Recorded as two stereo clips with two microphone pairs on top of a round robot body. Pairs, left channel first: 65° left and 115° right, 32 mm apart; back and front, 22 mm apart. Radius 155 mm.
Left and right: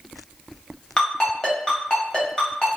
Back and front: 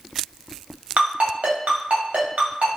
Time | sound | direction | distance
1.0 | a ringtone | 5° right | 0.7 m